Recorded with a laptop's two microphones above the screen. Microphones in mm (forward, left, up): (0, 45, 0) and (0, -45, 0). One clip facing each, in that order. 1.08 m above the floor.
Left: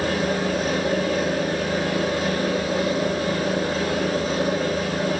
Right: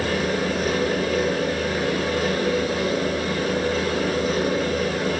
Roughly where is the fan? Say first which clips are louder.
Even; left.